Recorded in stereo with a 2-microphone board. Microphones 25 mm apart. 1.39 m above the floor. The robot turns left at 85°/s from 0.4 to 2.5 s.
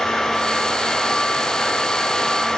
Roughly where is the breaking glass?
I don't hear breaking glass.